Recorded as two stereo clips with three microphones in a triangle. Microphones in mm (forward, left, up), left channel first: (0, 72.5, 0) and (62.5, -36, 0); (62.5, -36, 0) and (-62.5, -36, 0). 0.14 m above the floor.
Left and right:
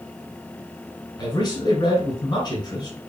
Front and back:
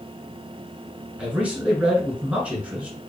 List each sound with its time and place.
1.2 s a man speaking: 110° left, 1.8 m